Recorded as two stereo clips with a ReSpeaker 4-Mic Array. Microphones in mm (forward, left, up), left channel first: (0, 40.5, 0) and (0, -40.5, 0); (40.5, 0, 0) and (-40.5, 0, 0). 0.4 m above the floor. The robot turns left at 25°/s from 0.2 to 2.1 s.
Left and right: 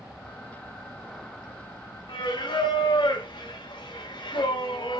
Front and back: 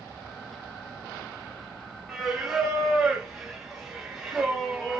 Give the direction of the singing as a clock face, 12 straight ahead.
9 o'clock.